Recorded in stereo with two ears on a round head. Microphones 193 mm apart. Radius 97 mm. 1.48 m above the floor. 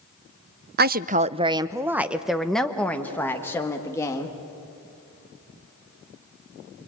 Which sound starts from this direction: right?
A woman speaking, at 0.8 s.